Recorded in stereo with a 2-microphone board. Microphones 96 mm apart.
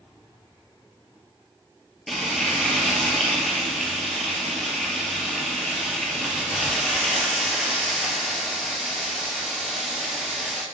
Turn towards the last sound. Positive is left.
turn(degrees=5)  # may be behind; listen again after turning